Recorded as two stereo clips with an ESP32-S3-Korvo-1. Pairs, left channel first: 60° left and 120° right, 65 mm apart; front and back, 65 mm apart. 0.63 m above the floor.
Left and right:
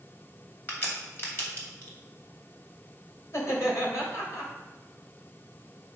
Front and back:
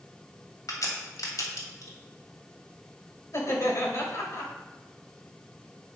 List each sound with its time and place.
0.7 s a crack: 5° left, 2.5 m
3.3 s laughter: 30° left, 3 m